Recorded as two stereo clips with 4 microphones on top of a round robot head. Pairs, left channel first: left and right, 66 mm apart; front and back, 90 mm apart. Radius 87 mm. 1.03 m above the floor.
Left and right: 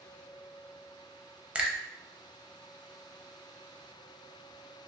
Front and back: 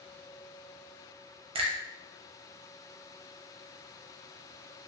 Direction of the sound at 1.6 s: 165° right.